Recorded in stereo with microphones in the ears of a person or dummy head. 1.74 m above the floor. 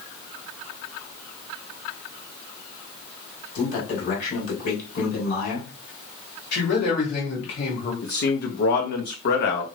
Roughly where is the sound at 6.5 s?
Left.